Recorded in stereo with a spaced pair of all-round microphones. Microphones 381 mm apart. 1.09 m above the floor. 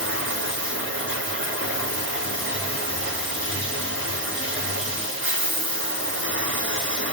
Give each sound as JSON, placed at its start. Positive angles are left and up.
{"t": 0.0, "sound": "running water", "side_deg": -30, "distance_m": 1.3}